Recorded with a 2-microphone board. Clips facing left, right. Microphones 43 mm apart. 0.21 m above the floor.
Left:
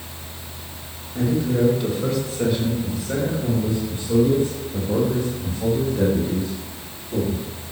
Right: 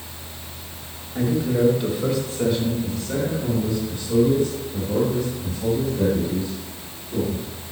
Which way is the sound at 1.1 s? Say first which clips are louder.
Even; 15° right (ahead or behind).